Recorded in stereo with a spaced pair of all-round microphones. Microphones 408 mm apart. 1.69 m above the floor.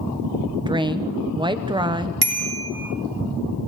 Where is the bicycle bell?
60° right (ahead or behind), 4 m.